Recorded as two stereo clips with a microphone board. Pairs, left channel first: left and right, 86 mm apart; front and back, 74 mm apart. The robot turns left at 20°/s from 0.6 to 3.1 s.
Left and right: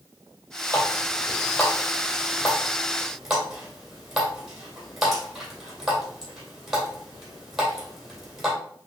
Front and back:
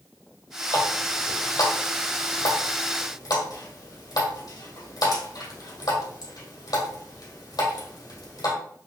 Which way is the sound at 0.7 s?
45° left.